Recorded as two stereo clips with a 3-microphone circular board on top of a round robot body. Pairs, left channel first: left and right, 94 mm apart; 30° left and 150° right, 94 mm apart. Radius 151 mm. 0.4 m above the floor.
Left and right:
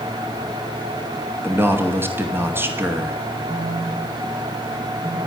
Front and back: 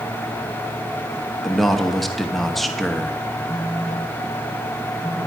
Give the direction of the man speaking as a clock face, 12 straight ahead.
2 o'clock.